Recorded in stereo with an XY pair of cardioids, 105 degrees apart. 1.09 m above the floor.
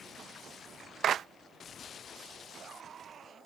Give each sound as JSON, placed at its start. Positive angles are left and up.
{"t": 1.0, "sound": "a clap", "azimuth_deg": -60}